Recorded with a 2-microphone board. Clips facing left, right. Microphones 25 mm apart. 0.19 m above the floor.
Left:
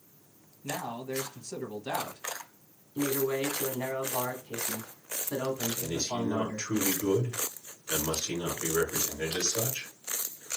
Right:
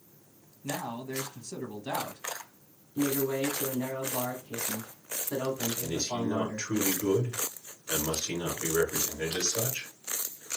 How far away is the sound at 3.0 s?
About 1.3 m.